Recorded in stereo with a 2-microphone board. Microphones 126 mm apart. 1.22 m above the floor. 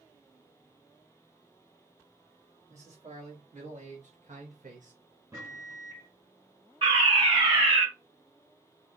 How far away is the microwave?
About 2 m.